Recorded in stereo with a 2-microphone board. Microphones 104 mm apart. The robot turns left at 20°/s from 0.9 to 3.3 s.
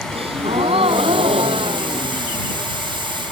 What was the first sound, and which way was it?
A gasp, 85° right.